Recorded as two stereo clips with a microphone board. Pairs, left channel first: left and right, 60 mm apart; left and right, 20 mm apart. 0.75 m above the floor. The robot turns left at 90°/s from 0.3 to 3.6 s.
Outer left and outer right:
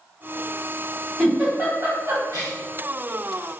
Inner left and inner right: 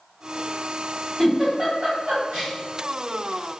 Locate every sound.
1.2 s a giggle: 5° left (ahead or behind), 1.6 m; by 2.5 s 60° right (ahead or behind), 1.6 m